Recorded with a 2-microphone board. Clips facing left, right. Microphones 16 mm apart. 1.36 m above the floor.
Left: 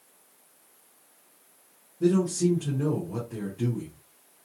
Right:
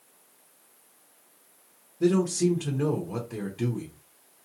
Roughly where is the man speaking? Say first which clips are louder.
Even; right.